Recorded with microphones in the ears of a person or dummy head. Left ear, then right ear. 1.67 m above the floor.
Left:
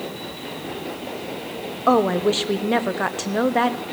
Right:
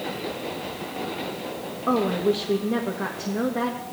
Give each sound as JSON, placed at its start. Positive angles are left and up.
{"t": 1.9, "sound": "a woman speaking", "side_deg": 30, "distance_m": 0.6}